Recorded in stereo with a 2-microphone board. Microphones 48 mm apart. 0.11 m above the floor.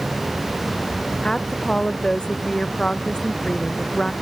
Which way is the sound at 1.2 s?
15° left (ahead or behind).